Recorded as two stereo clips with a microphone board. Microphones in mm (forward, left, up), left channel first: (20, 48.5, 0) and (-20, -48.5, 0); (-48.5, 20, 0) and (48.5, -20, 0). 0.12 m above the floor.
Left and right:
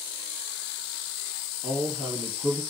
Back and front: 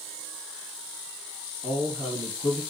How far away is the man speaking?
About 3 m.